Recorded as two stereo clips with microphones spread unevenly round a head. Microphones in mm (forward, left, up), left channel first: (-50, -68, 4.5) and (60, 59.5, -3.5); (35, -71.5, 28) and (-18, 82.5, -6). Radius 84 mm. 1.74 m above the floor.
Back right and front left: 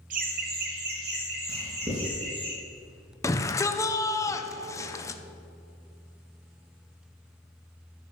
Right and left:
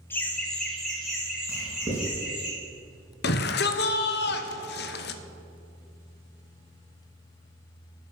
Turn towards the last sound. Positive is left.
turn(degrees=-60)